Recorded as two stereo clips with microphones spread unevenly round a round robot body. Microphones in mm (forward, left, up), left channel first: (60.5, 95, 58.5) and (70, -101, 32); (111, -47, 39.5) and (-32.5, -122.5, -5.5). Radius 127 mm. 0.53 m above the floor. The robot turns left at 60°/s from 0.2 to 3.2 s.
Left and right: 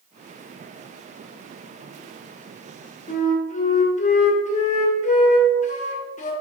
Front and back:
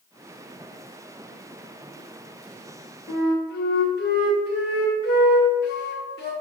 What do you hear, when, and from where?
3.1 s a flute: 50° left, 1.2 m; by 6.3 s 45° left, 1.2 m